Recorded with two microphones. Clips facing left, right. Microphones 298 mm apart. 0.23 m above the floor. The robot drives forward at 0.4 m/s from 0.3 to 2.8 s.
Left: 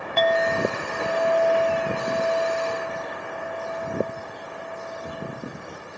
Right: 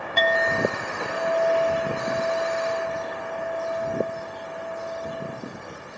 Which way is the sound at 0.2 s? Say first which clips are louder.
Left 2 dB; 30° right (ahead or behind).